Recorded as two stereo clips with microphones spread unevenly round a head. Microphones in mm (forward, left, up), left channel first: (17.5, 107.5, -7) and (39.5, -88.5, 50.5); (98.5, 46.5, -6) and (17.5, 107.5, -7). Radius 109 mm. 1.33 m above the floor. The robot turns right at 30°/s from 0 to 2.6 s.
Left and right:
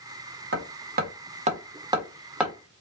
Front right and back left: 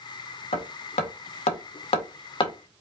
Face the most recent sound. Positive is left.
turn(degrees=5)